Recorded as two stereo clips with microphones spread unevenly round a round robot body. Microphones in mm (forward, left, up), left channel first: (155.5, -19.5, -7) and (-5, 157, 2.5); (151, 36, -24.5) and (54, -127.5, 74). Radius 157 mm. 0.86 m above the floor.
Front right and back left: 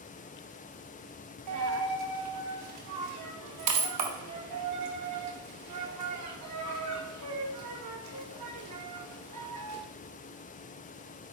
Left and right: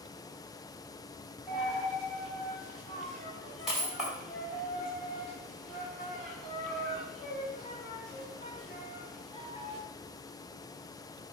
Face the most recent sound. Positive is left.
turn(degrees=155)